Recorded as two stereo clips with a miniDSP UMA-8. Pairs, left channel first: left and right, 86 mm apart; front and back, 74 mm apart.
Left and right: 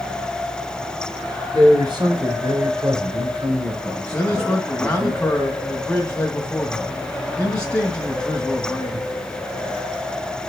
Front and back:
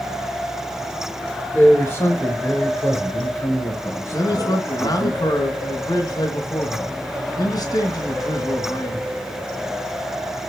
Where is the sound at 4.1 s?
10° left, 2 m.